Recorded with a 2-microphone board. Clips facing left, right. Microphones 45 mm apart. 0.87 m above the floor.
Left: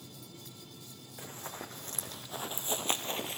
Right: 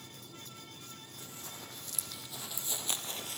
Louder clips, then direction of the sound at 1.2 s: Left 7 dB; 40° left (ahead or behind).